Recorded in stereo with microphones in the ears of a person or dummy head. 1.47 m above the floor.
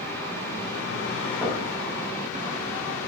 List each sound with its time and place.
1.4 s knocking: centre (ahead or behind), 0.9 m